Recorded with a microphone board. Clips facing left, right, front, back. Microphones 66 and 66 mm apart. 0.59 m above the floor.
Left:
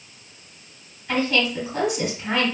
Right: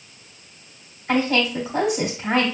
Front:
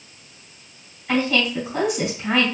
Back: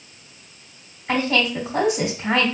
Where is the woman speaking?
125° right, 1.9 m.